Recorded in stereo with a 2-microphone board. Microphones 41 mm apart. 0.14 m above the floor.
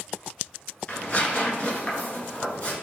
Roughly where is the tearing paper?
Left.